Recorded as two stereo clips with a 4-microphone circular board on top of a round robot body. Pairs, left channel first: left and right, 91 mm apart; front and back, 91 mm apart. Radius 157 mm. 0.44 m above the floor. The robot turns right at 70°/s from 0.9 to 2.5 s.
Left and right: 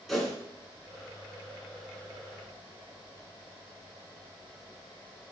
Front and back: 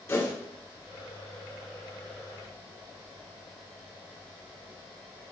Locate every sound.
0.1 s a whoosh: straight ahead, 1.4 m